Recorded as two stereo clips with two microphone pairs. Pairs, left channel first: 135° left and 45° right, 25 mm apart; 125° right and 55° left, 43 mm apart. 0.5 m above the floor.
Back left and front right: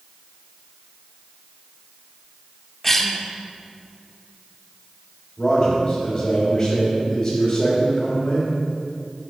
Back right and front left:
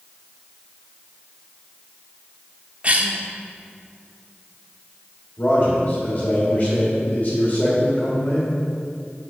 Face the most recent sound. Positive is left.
turn(degrees=-170)